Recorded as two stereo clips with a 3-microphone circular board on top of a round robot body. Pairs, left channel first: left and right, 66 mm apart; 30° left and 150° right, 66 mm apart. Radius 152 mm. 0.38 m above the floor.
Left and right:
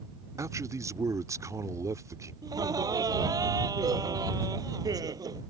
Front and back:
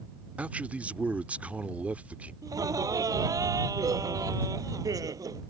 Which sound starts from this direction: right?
A man speaking, at 0.4 s.